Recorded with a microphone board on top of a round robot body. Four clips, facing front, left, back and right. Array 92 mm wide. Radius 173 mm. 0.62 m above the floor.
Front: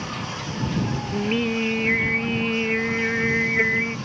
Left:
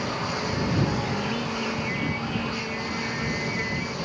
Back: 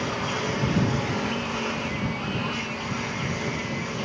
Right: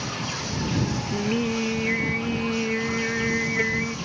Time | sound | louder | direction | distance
0.0 | a lawn mower | left 3 dB, back 3 dB | 145° left | ?
1.1 | singing | right 3 dB, front 4 dB | 30° right | ?